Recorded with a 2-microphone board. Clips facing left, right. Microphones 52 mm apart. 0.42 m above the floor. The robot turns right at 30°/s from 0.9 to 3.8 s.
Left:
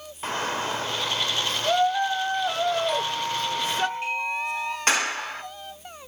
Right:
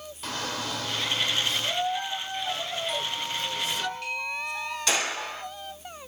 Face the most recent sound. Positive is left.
turn(degrees=45)  # may be behind; listen again after turning